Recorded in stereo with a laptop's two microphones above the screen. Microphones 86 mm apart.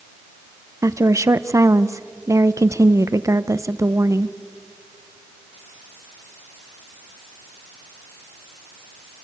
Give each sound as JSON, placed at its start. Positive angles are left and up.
{"t": 0.8, "sound": "a woman speaking", "side_deg": -35, "distance_m": 0.6}